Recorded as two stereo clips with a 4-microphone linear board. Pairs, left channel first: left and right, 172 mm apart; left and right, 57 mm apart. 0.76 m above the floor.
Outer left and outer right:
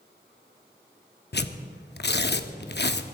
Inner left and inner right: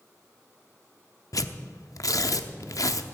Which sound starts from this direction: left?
Tearing paper, at 1.3 s.